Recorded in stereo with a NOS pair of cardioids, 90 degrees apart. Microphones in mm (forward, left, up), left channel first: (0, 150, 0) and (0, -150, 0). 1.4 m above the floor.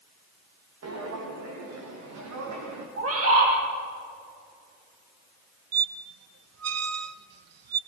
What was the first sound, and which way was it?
Footsteps, 55° right.